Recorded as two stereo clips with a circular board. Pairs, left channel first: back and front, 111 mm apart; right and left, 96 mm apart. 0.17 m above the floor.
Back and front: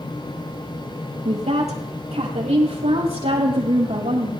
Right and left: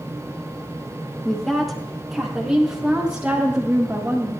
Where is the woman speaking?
5° right, 4 m; by 4.3 s 20° left, 5 m.